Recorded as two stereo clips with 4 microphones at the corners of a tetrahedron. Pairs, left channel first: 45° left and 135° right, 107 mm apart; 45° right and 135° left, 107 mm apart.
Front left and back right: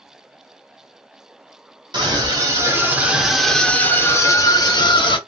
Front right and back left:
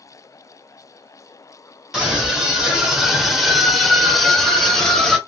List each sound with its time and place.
1.9 s a scream: 145° right, 1.2 m; by 5.2 s 40° left, 1.3 m